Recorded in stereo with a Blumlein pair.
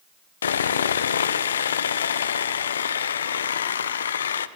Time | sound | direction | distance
0.4 | sawing | 65° left | 0.6 m